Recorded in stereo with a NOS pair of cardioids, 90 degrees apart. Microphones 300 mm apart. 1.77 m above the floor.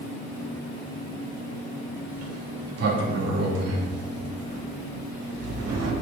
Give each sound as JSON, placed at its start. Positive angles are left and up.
{"t": 2.1, "sound": "a sliding door", "azimuth_deg": -55, "distance_m": 2.5}